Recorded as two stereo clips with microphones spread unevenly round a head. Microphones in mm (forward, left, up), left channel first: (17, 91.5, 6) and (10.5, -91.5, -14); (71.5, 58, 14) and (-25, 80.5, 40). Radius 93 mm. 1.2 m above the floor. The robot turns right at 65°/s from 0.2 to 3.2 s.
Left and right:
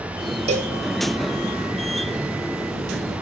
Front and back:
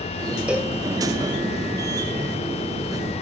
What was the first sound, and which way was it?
A cowbell, 140° right.